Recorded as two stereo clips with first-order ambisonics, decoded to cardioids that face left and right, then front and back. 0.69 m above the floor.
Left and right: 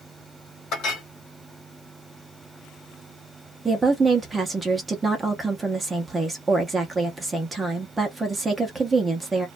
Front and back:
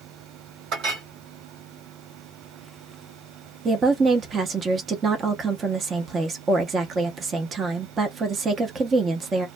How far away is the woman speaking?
About 0.6 m.